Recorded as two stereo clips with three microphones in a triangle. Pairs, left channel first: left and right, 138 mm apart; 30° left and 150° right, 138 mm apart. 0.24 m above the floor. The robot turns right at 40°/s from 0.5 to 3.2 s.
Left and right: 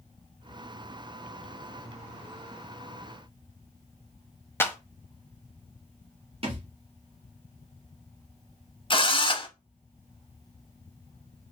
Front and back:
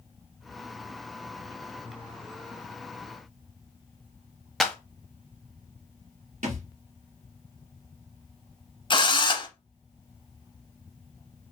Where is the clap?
115° left, 0.8 m.